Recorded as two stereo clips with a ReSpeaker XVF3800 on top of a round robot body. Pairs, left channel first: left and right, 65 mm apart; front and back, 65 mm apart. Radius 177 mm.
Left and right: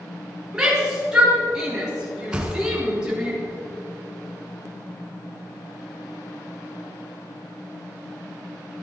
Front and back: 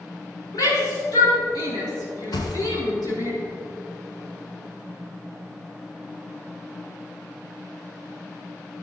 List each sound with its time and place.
0.5 s a shout: 10° right, 6.5 m
2.3 s a thud: 15° right, 2.0 m